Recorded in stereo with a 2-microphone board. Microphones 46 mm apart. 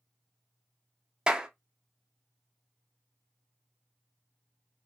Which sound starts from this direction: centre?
A clap, at 1.3 s.